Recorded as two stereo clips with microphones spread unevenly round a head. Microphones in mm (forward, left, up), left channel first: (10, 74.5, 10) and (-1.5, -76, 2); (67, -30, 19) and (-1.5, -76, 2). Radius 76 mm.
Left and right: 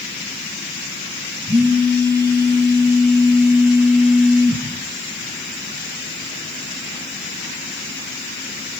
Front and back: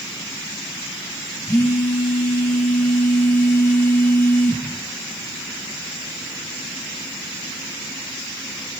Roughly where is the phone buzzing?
Ahead right.